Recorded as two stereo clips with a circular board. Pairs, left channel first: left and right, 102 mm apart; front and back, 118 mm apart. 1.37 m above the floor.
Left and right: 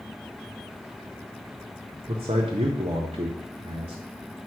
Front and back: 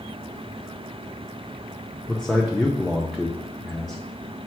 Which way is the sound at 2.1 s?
90° right.